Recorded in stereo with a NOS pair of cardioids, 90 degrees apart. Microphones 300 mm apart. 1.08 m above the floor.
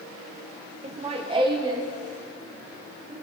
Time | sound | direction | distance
0.8 | laughter | 25° right | 0.7 m